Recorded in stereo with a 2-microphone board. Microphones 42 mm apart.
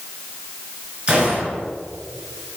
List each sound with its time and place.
1.1 s a gunshot: 25° right (ahead or behind), 3.5 m